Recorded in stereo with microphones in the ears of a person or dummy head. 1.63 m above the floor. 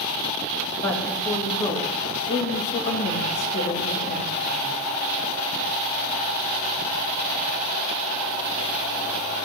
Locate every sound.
0.8 s a woman speaking: 15° left (ahead or behind), 3 m; by 4.7 s 65° left (ahead or behind), 3.5 m